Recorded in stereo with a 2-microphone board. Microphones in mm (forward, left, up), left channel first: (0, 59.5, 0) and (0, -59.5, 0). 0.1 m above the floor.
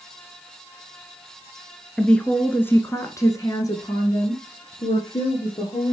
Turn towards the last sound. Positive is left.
turn(degrees=40)  # may be behind; listen again after turning